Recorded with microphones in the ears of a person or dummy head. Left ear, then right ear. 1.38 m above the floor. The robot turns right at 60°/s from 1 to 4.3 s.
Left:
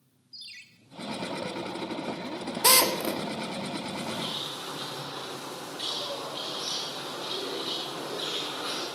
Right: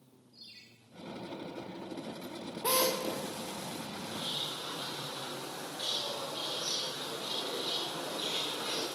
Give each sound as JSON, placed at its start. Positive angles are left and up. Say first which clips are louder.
{"t": 0.3, "sound": "a ringtone", "louder": "left 8 dB", "side_deg": 50, "distance_m": 1.1}
{"t": 2.6, "sound": "a drill", "louder": "left 8 dB", "side_deg": 65, "distance_m": 1.5}
{"t": 4.1, "sound": "a bird", "louder": "left 1 dB", "side_deg": 25, "distance_m": 8.0}